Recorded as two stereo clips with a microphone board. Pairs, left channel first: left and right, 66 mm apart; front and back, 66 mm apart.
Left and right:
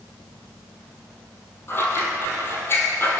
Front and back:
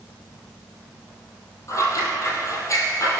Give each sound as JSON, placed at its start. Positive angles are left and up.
{"t": 1.7, "sound": "scissors", "azimuth_deg": 35, "distance_m": 2.5}